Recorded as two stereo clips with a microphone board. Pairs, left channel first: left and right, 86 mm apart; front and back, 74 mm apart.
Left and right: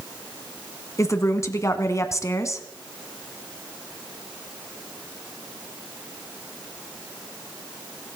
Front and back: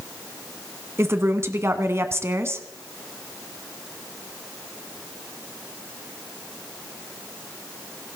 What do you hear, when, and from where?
1.0 s a woman speaking: 135° left, 1.6 m